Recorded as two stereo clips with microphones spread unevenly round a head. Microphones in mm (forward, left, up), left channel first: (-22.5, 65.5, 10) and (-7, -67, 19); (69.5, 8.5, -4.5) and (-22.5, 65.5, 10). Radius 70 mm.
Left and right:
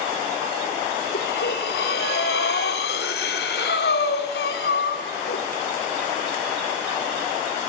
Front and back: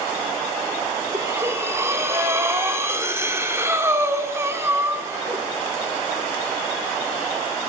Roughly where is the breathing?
Left.